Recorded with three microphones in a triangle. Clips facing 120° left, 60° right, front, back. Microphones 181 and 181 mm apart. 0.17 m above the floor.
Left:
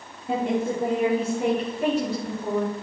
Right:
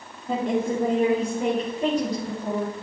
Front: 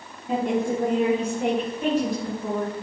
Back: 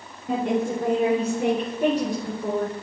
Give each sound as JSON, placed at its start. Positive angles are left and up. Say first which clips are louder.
{"t": 0.3, "sound": "a woman speaking", "louder": "even, even", "azimuth_deg": -165, "distance_m": 3.5}